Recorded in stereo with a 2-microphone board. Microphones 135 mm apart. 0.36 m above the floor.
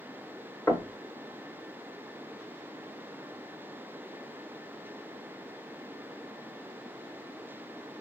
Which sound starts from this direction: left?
Knocking, at 0.7 s.